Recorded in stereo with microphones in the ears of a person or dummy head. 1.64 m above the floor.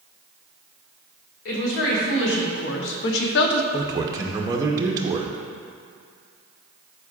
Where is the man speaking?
25° right (ahead or behind), 0.8 m.